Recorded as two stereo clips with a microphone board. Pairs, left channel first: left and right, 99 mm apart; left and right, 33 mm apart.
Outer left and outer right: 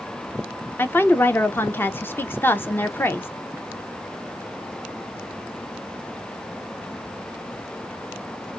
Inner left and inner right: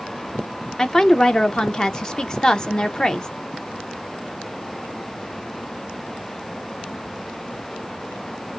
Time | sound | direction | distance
0.8 | a woman speaking | 20° left (ahead or behind) | 0.5 m